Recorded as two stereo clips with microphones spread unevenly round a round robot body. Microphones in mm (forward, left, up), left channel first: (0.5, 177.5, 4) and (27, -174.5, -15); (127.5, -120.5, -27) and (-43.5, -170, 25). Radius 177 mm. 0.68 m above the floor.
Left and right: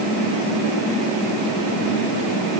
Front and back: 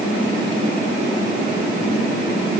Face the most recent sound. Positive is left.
No sound to turn to.